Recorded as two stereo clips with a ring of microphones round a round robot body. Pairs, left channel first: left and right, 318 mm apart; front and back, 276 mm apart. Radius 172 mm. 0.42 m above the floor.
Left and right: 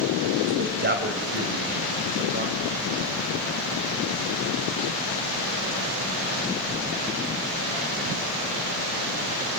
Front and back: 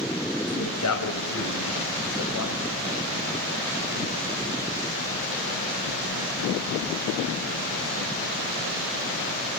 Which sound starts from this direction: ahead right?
A man speaking, at 0.5 s.